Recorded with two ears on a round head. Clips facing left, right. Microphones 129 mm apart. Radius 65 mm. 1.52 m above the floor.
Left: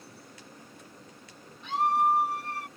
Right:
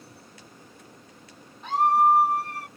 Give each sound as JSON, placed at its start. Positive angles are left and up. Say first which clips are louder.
{"t": 1.6, "sound": "a scream", "louder": "right 5 dB", "side_deg": -40}